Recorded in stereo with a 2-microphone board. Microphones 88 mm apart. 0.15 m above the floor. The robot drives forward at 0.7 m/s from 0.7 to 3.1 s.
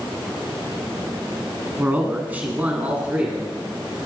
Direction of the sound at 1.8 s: 15° right (ahead or behind).